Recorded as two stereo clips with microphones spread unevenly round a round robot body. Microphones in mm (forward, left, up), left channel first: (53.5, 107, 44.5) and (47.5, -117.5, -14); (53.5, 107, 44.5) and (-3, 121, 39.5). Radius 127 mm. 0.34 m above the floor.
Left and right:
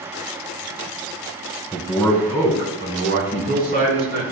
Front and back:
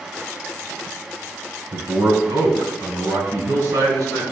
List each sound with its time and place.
1.7 s a man speaking: straight behind, 3.5 m; by 4.2 s 150° right, 5.5 m